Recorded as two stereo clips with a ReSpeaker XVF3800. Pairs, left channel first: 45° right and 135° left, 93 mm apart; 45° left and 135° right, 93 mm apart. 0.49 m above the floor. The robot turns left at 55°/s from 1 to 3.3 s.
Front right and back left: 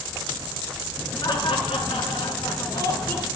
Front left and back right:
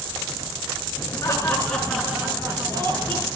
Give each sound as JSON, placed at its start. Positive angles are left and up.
{"t": 1.2, "sound": "laughter", "azimuth_deg": -5, "distance_m": 6.5}